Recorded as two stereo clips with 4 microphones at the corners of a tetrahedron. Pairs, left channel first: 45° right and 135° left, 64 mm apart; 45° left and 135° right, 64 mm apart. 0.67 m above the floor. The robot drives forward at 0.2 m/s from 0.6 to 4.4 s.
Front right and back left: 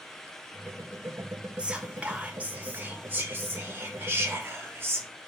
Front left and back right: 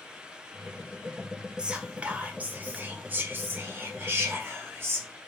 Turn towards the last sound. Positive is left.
turn(degrees=180)